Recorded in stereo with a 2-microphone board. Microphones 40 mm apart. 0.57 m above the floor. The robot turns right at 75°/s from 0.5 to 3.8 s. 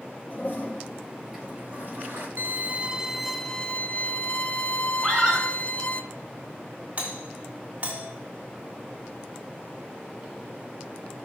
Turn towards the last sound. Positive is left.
turn(degrees=-40)  # may be behind; listen again after turning